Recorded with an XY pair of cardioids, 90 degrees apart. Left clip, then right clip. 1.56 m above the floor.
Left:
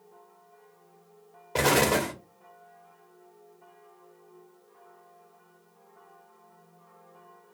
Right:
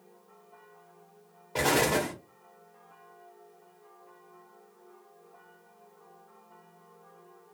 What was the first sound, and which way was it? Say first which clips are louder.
An explosion: left 2 dB; 45° left.